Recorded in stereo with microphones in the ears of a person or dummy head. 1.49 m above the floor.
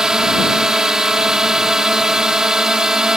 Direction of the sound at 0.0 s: 5° right (ahead or behind).